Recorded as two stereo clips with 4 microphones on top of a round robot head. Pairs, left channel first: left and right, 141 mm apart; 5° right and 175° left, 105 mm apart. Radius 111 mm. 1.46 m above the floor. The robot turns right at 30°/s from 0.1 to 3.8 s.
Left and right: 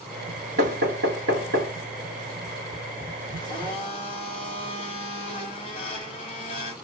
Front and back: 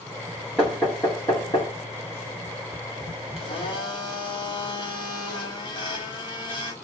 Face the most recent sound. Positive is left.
turn(degrees=30)